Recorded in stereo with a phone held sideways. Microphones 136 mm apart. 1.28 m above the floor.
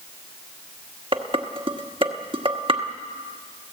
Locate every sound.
1.1 s dishes clattering: 45° right (ahead or behind), 1.4 m